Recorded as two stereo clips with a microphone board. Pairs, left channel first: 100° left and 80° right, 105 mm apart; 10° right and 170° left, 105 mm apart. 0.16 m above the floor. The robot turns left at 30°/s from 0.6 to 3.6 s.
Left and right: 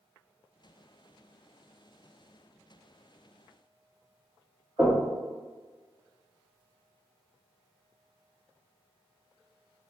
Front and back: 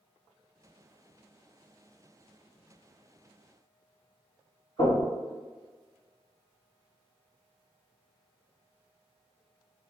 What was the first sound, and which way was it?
Knocking, 45° right.